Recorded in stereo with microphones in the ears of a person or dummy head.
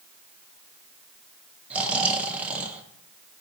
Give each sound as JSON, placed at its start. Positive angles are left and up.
{"t": 1.7, "sound": "snoring", "side_deg": -10, "distance_m": 0.9}